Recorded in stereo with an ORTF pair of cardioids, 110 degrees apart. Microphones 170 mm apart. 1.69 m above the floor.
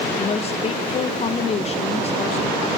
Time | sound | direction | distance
0.2 | a woman speaking | 40° left | 1.7 m